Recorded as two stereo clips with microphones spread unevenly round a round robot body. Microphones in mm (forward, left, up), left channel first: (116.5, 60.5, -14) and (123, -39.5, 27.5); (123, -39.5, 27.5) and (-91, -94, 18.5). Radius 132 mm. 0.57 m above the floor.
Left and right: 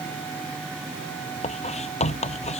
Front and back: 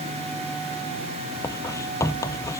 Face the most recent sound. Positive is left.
turn(degrees=95)